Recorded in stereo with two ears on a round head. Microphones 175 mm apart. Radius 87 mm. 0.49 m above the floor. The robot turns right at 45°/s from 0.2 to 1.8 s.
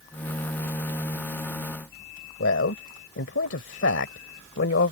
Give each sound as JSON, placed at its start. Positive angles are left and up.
{"t": 2.4, "sound": "a man speaking", "side_deg": 70}